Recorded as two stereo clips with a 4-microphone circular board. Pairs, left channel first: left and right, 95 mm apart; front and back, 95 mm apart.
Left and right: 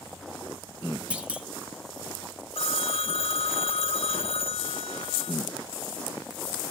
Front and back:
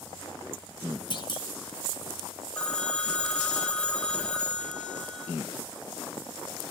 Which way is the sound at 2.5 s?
80° left.